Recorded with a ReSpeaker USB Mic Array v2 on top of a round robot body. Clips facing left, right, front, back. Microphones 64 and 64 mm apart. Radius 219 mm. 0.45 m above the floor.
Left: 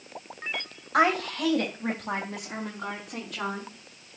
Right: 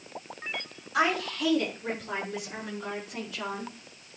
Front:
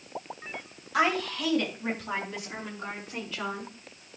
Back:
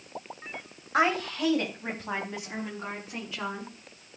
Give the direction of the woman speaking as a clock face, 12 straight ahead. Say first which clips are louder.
Left 4 dB, back 1 dB; 8 o'clock.